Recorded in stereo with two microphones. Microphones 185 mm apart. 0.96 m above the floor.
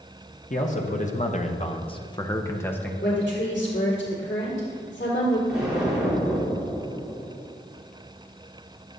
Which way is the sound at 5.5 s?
5° right (ahead or behind).